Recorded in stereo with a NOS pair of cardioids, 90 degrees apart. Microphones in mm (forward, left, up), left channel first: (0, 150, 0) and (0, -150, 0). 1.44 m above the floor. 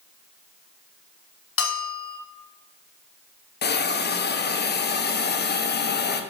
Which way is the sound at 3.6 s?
35° left.